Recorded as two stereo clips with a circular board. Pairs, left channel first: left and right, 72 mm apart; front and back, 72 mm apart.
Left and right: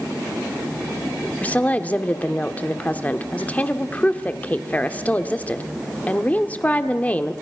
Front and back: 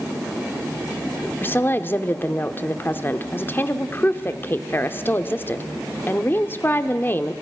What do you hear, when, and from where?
1.4 s a woman speaking: 35° left, 1.1 m